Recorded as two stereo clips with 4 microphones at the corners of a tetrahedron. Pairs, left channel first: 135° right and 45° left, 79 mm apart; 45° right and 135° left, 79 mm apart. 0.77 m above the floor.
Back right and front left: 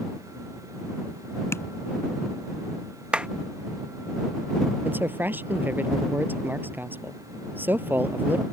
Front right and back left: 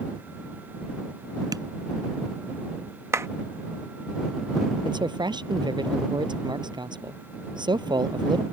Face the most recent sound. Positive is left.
turn(degrees=110)